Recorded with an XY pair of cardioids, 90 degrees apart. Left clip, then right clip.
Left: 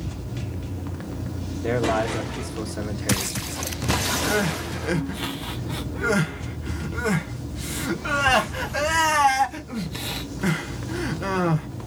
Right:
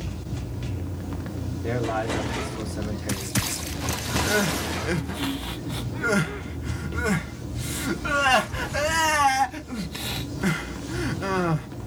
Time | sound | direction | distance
1.6 | a man speaking | 30° left | 1.1 m
4.2 | crying | 5° right | 0.5 m